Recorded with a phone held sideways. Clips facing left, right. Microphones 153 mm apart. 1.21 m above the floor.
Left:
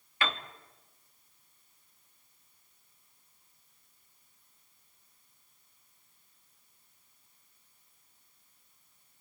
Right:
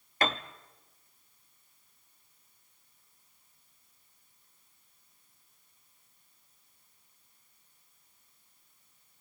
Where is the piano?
40° right (ahead or behind), 1.0 m.